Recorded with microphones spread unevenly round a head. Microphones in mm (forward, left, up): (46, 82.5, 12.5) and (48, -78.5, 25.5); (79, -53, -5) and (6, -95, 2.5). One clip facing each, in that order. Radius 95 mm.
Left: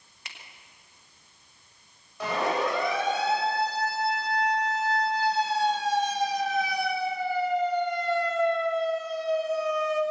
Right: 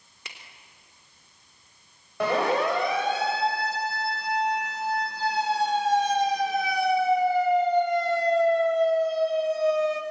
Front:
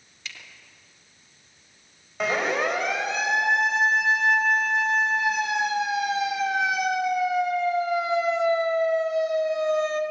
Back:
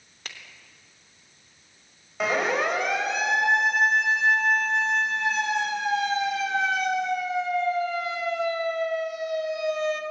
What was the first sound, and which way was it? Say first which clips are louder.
A finger snap: right 2 dB, even; 110° right.